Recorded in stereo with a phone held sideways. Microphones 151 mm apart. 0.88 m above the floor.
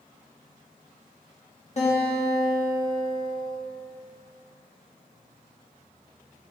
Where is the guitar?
50° left (ahead or behind), 1.9 m.